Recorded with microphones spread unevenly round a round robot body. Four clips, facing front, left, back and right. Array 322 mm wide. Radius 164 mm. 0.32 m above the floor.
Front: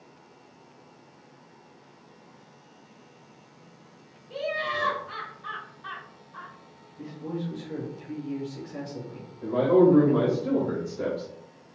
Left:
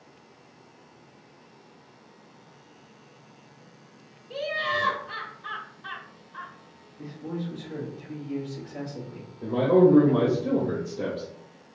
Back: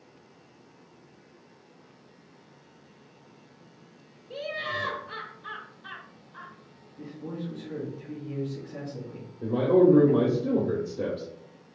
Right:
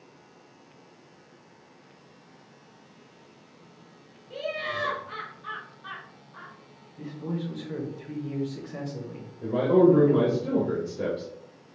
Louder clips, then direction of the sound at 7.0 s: Right 1 dB, front 3 dB; 110° right.